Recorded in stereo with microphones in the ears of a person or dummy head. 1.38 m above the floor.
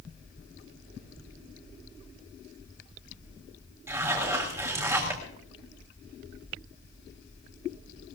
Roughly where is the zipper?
Centre.